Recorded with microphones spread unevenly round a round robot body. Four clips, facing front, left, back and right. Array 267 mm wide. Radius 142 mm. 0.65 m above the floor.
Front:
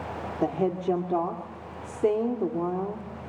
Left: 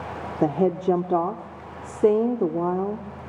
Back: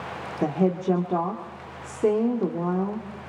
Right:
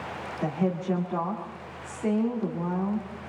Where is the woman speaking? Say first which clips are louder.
Left 7 dB, back 3 dB; 100° left, 2 m.